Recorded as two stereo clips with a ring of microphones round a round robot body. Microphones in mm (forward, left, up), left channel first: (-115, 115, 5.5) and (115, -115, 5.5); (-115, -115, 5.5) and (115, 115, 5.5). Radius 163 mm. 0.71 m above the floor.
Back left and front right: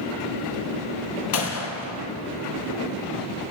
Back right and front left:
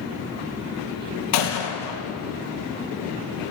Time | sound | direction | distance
1.3 | a gunshot | 175° right | 3 m